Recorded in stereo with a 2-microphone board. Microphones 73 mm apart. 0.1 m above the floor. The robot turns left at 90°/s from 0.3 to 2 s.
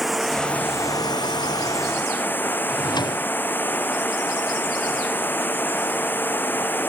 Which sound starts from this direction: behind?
Running water, at 0.0 s.